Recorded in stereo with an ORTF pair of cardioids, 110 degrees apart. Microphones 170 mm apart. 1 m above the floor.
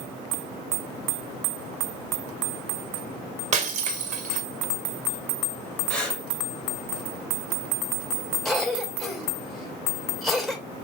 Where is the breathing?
5° left, 3 m.